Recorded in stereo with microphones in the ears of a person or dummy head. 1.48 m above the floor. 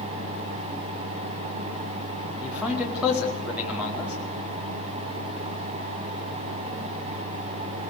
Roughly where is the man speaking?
Centre.